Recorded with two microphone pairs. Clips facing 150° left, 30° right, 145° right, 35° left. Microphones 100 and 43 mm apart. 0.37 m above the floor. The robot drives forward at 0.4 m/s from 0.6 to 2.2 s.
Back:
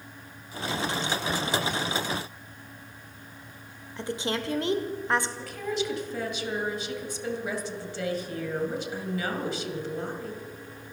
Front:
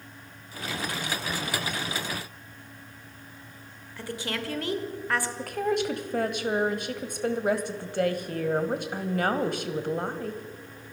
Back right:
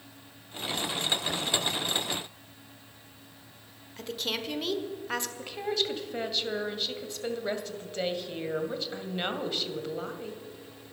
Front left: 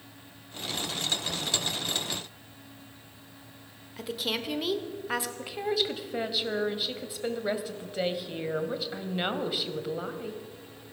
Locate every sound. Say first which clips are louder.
4.0 s a woman speaking: back 3 dB, front left 1 dB; 115° left, 1.3 m
5.4 s a woman speaking: front 4 dB, front left 2 dB; 45° right, 1.6 m